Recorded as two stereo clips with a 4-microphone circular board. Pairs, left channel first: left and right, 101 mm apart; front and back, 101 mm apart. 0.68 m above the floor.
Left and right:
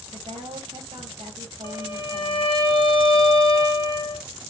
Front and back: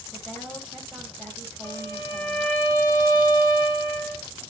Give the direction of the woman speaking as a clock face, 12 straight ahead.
3 o'clock.